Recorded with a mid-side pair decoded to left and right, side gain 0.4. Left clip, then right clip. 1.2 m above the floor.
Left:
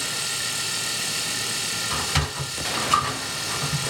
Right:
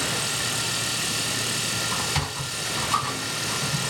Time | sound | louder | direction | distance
0.0 | a machine running | right 1 dB | 5° left | 1.3 m
1.9 | a sliding door | left 1 dB | 70° left | 1.9 m